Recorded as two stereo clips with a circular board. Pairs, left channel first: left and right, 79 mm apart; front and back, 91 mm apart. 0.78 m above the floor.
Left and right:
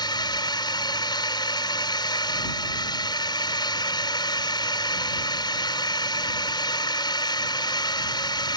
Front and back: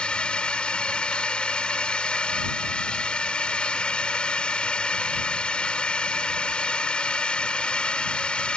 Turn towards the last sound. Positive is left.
turn(degrees=80)